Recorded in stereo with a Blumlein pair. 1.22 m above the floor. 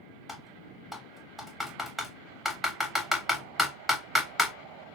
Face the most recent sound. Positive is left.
turn(degrees=0)